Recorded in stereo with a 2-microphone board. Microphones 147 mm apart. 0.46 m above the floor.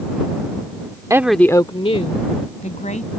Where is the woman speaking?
25° right (ahead or behind); by 3.1 s 65° left (ahead or behind).